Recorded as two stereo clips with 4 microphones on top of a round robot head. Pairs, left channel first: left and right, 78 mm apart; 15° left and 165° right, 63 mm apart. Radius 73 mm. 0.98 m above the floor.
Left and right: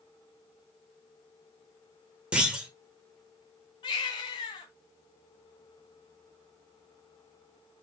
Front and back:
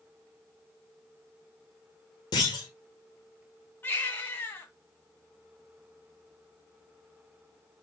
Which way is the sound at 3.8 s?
70° left.